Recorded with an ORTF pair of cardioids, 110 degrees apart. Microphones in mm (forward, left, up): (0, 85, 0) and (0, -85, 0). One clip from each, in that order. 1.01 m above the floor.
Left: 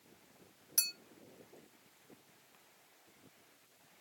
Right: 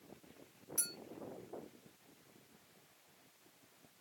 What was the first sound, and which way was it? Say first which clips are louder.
A clink: left 8 dB; 55° left.